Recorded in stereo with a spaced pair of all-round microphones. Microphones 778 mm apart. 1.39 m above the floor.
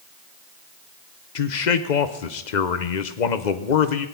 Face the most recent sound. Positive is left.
turn(degrees=65)  # may be behind; listen again after turning